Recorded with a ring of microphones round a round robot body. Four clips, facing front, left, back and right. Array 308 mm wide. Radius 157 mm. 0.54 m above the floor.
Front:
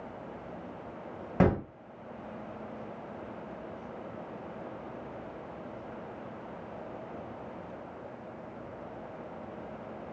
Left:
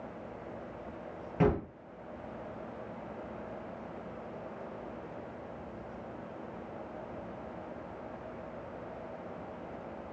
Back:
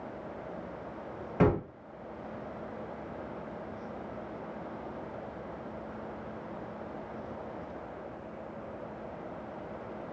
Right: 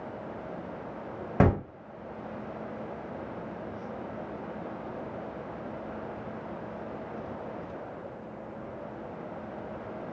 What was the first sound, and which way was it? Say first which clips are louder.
A gunshot: right 4 dB, even; 70° right.